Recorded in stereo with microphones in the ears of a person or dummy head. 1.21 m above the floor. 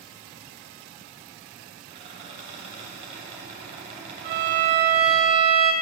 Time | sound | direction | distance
1.9 | a squeak | 40° right (ahead or behind) | 3 m
4.2 | a violin | 50° right (ahead or behind) | 1.0 m